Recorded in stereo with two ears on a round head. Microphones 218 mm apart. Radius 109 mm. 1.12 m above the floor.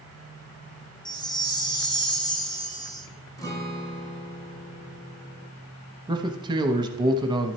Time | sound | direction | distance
1.1 | a chime | 20° left (ahead or behind) | 0.8 m
3.4 | a guitar | 15° left (ahead or behind) | 1.1 m
6.1 | a man speaking | 20° right (ahead or behind) | 0.8 m